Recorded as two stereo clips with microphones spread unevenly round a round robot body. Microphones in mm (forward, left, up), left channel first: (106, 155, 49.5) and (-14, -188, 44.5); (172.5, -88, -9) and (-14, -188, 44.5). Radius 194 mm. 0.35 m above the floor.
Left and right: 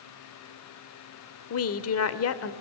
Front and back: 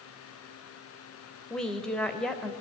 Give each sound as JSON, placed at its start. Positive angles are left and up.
{"t": 1.5, "sound": "a woman speaking", "azimuth_deg": 100, "distance_m": 1.3}